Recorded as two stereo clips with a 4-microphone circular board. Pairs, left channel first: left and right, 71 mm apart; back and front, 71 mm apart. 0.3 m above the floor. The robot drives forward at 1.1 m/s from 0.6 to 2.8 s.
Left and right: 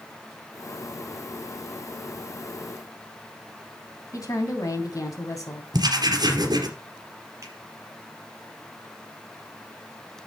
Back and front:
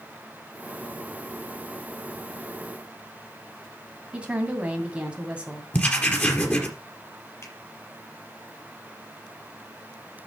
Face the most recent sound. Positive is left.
turn(degrees=-135)